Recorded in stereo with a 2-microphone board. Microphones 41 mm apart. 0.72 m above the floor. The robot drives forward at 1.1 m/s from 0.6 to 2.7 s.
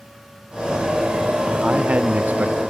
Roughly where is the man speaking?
Right.